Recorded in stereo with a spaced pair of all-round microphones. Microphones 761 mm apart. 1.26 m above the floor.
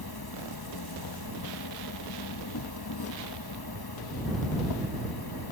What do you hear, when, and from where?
0.0 s an insect: 30° left (ahead or behind)